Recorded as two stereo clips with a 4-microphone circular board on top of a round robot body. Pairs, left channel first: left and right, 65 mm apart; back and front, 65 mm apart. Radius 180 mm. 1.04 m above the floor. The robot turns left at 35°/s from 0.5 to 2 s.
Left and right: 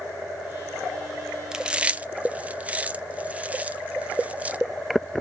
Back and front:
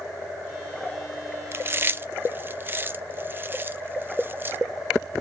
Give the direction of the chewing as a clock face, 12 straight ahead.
1 o'clock.